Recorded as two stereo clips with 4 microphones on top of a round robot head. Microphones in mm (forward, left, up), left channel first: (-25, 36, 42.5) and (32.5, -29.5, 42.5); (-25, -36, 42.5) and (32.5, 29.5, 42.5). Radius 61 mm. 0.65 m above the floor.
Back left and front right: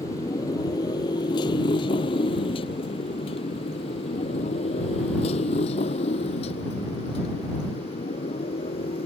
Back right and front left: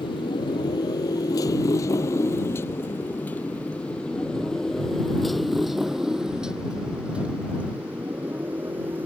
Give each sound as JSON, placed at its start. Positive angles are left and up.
{"t": 0.0, "sound": "a motorcycle", "azimuth_deg": -170}